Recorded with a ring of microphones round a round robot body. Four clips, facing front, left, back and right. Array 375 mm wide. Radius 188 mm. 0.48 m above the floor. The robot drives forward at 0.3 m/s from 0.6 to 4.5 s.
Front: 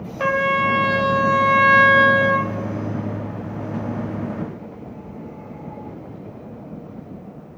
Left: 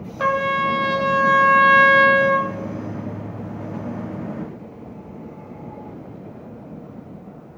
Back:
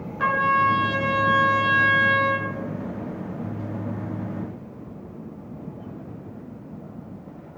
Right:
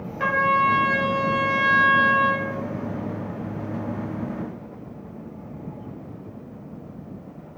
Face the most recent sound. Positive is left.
turn(degrees=135)